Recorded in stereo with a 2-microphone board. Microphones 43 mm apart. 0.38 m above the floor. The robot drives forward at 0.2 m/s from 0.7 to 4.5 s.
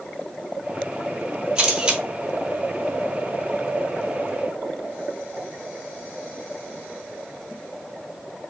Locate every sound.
1.6 s a camera shutter: 20° right (ahead or behind), 1.3 m